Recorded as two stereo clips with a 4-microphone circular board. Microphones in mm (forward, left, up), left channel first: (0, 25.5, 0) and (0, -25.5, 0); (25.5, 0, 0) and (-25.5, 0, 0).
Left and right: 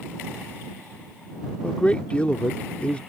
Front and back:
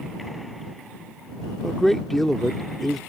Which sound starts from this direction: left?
A man speaking, at 1.6 s.